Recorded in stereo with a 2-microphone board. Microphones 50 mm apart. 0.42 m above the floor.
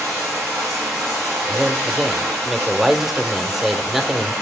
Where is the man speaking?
5° right (ahead or behind), 0.8 m.